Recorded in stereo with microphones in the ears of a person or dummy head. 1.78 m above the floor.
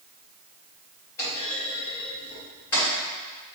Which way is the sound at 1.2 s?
20° left (ahead or behind).